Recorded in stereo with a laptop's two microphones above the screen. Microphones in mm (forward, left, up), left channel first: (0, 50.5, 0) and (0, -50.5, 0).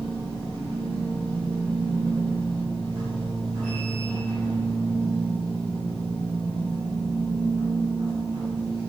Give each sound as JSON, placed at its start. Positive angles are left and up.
{"t": 0.0, "sound": "a machine running", "side_deg": -60, "distance_m": 4.0}